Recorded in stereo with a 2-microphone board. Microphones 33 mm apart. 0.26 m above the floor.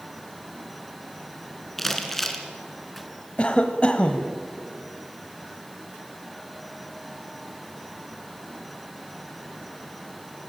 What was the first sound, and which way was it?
Crumpling, 5° left (ahead or behind).